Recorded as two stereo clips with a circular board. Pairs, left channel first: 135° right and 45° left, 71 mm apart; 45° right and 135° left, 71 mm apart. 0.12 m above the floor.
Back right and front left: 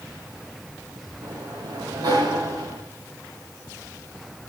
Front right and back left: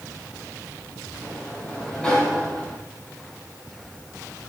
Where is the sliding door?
35° left, 4 m.